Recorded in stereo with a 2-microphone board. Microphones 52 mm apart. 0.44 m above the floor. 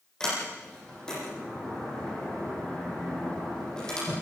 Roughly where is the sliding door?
Centre.